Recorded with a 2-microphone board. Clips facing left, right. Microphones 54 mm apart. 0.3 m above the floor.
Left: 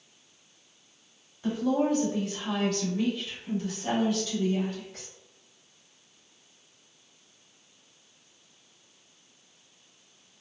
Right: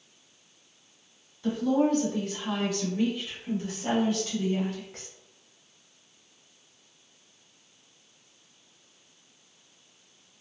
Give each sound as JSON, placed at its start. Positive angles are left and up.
{"t": 1.4, "sound": "a woman speaking", "side_deg": 20, "distance_m": 1.1}